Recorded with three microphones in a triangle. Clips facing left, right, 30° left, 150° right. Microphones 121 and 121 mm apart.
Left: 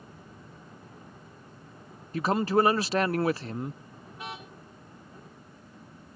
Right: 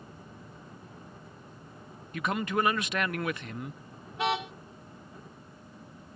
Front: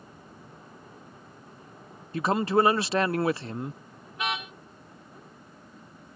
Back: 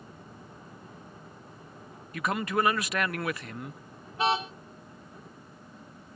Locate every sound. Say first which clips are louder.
2.1 s a man speaking: left 6 dB, front 5 dB; 65° left
4.1 s a car horn: right 12 dB, back 5 dB; 90° right